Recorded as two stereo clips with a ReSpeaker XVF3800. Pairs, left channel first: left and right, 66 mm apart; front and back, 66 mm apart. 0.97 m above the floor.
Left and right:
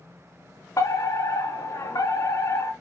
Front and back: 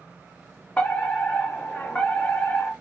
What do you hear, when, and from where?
0.8 s a fire alarm: 75° left, 3.5 m